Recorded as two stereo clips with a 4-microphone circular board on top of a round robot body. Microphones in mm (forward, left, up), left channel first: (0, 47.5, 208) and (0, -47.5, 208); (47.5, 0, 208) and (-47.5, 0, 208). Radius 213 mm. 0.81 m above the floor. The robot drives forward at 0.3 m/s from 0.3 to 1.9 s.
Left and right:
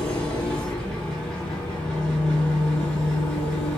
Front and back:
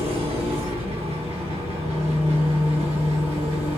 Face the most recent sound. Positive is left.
turn(degrees=175)